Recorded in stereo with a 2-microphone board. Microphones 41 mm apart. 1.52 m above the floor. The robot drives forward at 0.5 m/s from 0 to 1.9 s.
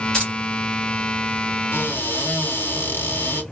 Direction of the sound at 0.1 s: 15° left (ahead or behind).